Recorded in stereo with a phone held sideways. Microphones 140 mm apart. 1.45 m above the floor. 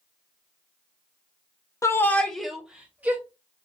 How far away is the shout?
About 0.6 m.